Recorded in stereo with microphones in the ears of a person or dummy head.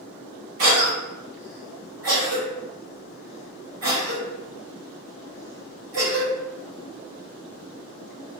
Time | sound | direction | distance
0.6 | a cough | 80° right | 1.9 m